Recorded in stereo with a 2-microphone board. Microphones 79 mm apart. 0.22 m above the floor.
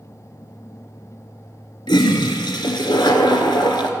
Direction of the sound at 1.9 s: 75° left (ahead or behind).